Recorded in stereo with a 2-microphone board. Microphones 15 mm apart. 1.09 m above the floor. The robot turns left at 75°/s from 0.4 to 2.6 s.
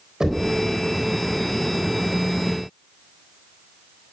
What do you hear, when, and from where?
0.2 s knocking: 40° right (ahead or behind), 4 m; by 0.5 s 30° right (ahead or behind), 4 m